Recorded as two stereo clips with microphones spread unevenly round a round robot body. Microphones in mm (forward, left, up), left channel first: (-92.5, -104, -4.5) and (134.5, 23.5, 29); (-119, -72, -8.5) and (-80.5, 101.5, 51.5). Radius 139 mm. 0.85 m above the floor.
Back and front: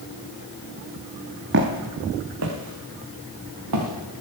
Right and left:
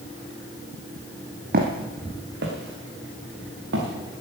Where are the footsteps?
70° left, 1.6 m; by 3.9 s 60° left, 4 m.